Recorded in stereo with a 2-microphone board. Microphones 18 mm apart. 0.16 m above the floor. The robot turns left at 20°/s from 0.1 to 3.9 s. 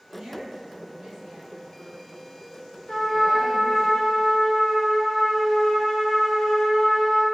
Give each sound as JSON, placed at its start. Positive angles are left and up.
{"t": 0.1, "sound": "a woman speaking", "azimuth_deg": -80, "distance_m": 1.9}
{"t": 2.9, "sound": "a trumpet", "side_deg": 30, "distance_m": 1.1}